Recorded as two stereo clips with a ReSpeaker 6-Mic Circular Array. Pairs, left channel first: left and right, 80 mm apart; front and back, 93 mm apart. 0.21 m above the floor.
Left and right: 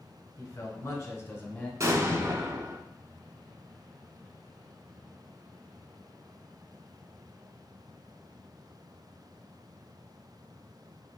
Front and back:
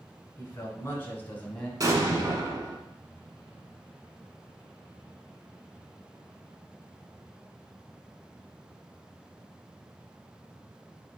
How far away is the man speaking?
About 1.7 m.